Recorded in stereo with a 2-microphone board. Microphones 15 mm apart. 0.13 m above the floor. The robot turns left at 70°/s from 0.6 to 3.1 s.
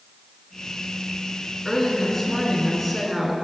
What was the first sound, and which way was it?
A woman speaking, 20° left (ahead or behind).